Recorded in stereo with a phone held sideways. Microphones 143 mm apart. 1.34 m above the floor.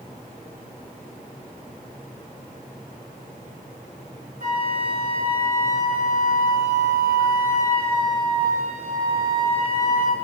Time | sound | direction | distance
4.4 | a flute | 65° right (ahead or behind) | 4.5 m